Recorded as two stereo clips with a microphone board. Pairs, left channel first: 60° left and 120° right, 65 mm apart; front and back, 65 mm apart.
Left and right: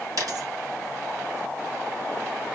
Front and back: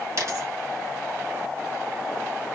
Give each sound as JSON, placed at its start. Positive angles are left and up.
{"t": 0.2, "sound": "a dropped coin", "azimuth_deg": -145, "distance_m": 2.5}